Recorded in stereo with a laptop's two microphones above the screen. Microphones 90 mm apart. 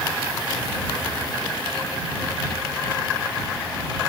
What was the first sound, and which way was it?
Only background noise.